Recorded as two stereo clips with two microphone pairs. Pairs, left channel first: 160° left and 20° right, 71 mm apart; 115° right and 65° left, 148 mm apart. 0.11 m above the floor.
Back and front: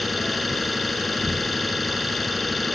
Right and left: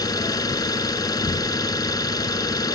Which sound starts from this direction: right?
An engine running, at 0.0 s.